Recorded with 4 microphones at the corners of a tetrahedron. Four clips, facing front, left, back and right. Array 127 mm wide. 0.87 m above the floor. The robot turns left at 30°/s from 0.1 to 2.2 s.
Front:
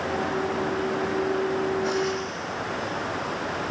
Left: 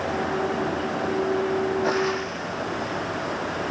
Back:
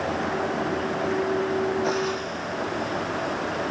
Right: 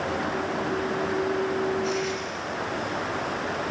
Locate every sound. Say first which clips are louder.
1.8 s frying: left 4 dB, even; 115° left, 1.0 m; by 3.4 s 105° left, 1.0 m